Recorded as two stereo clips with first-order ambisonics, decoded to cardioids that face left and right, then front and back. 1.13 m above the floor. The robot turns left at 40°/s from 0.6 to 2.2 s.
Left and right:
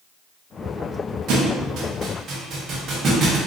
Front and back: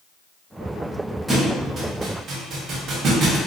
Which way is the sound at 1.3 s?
100° right.